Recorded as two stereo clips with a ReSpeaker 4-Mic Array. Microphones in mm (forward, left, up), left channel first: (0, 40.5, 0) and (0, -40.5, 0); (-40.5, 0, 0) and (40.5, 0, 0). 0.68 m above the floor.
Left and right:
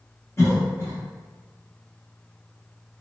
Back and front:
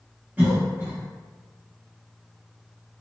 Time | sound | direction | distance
0.4 | a cough | 60° left | 0.7 m